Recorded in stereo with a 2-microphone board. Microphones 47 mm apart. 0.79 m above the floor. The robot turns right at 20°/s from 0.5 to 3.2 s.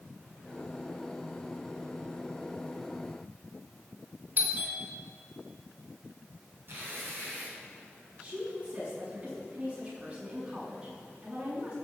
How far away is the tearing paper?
About 6 m.